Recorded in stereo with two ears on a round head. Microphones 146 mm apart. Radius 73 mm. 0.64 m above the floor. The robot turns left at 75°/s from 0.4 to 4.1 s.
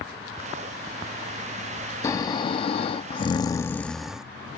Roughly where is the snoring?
Behind left.